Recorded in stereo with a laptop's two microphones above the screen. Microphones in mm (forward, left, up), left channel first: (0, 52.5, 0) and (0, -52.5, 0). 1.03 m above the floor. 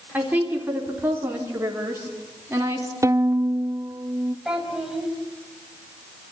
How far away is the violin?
About 0.7 m.